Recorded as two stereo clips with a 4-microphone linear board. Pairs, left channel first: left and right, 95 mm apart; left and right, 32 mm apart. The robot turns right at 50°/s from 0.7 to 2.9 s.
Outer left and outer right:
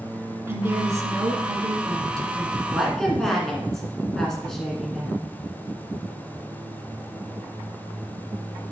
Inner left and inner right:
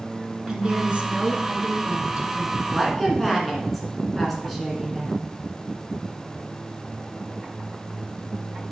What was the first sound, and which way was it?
A woman speaking, 135° right.